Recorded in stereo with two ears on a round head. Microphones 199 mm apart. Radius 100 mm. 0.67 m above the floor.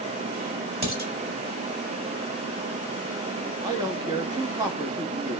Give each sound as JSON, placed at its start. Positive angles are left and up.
{"t": 0.8, "sound": "dishes clattering", "side_deg": -25, "distance_m": 1.8}
{"t": 3.6, "sound": "a man speaking", "side_deg": -15, "distance_m": 0.8}